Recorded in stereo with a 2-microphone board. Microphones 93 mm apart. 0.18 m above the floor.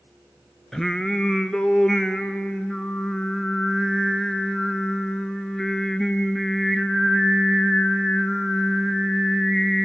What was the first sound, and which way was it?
Singing, 5° left (ahead or behind).